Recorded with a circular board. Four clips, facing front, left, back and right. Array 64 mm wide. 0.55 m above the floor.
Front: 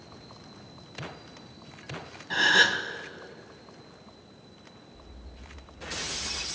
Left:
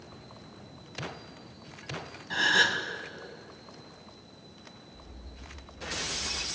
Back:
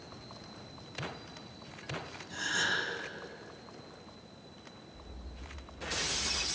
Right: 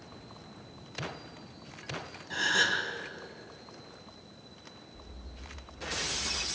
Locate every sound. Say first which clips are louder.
2.3 s a gasp: left 3 dB, front 11 dB; 20° left, 2 m